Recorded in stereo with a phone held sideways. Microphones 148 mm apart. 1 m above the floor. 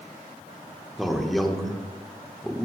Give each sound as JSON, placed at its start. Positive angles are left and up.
{"t": 1.0, "sound": "a man speaking", "side_deg": 0, "distance_m": 1.0}